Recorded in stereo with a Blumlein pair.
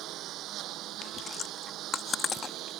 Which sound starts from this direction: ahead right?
A lawn mower, at 0.0 s.